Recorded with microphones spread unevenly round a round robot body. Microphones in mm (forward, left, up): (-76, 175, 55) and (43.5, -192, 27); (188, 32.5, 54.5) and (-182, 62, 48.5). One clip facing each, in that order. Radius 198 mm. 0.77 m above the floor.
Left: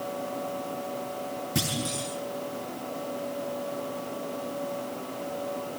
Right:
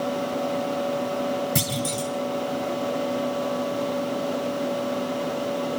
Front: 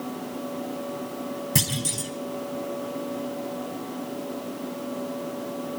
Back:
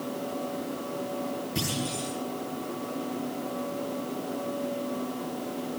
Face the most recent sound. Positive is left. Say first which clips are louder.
# right 4 dB, front 1 dB
turn(degrees=-30)